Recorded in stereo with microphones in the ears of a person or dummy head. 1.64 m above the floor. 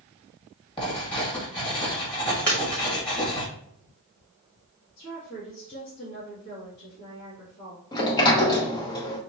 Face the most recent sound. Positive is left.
turn(degrees=20)  # may be behind; listen again after turning